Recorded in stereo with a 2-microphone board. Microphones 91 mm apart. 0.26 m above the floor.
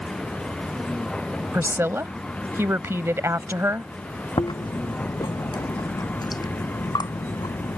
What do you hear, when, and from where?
0.0 s a vehicle: 5° left (ahead or behind); by 7.8 s 15° left (ahead or behind)
1.5 s a woman speaking: 30° right (ahead or behind)
4.4 s chewing: 50° left (ahead or behind)